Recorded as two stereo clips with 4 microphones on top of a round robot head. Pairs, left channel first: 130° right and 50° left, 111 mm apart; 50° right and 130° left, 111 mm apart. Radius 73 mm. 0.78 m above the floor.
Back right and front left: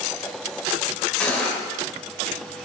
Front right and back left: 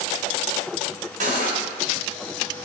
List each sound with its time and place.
1.2 s cutlery clinking: 150° left, 1.8 m